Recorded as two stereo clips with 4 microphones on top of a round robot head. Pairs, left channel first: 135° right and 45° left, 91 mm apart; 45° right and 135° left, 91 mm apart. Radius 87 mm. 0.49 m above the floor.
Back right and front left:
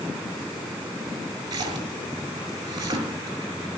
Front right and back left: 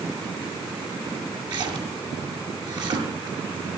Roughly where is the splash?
Left.